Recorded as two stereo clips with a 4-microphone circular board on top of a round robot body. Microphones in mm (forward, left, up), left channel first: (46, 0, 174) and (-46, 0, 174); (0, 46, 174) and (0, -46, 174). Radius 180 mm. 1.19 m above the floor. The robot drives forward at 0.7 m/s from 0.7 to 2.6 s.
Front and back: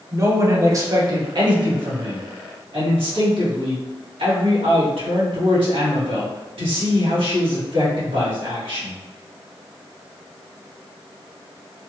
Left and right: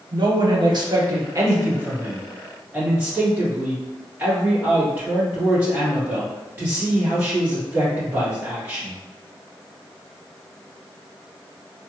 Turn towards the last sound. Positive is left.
turn(degrees=-160)